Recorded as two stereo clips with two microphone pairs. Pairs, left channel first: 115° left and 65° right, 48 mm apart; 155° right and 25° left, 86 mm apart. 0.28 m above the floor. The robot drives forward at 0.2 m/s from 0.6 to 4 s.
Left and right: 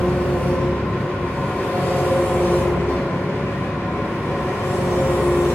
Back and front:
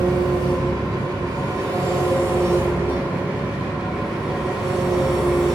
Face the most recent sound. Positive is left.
turn(degrees=110)